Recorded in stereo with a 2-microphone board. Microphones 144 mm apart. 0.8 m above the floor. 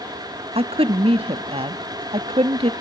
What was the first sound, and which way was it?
A woman speaking, 40° right (ahead or behind).